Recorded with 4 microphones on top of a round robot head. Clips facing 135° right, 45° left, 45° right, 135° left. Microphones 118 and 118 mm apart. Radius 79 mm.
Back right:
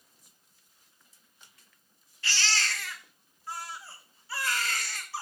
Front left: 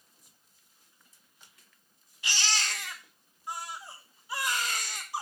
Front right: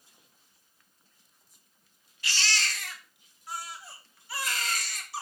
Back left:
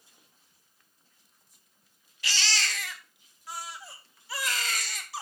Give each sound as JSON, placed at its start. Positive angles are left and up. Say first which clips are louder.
{"t": 2.2, "sound": "a baby crying", "louder": "back right 1 dB, even", "azimuth_deg": 120, "distance_m": 1.1}